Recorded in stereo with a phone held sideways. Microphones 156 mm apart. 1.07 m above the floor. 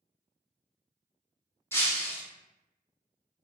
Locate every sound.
1.7 s breaking glass: 15° left (ahead or behind), 0.7 m